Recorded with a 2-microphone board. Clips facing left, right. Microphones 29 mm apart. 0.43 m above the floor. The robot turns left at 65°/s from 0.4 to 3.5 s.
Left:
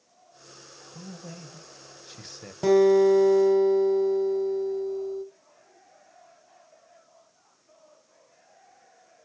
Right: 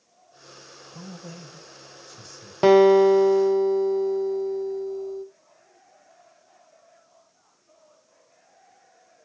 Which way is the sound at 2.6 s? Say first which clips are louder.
Right 4 dB; 130° right.